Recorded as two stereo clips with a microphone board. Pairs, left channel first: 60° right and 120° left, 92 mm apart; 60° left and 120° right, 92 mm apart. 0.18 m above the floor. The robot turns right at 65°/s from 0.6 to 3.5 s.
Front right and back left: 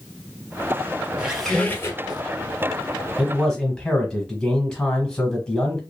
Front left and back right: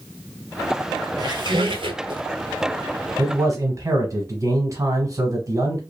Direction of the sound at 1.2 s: 165° right.